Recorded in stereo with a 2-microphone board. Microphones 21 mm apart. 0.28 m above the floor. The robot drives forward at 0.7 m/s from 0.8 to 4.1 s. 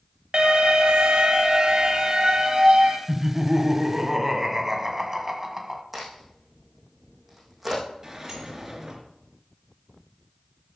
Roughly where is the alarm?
Right.